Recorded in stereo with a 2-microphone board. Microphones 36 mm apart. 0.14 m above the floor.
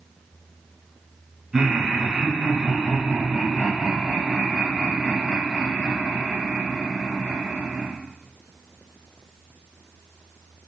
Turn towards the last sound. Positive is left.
turn(degrees=-20)  # may be behind; listen again after turning